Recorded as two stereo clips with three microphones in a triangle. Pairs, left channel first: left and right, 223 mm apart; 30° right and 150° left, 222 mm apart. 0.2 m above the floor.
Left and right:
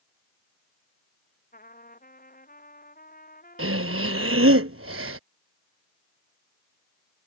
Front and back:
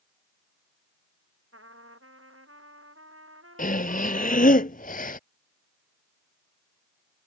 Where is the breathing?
85° right.